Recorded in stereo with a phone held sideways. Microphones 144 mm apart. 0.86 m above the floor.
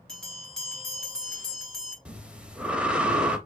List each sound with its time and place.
0.1 s a bell: 5° left (ahead or behind), 1.8 m
2.0 s breathing: 5° right (ahead or behind), 0.7 m